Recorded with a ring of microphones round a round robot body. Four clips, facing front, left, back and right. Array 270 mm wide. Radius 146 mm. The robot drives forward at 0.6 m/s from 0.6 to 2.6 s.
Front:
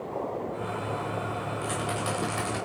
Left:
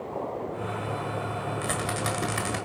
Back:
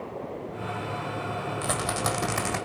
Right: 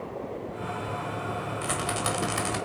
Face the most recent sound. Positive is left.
turn(degrees=165)